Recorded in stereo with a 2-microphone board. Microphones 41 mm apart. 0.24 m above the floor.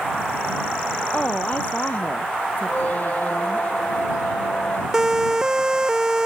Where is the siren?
15° right (ahead or behind).